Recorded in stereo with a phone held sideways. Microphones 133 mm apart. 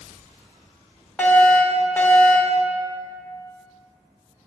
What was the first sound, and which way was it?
A fire alarm, 10° left (ahead or behind).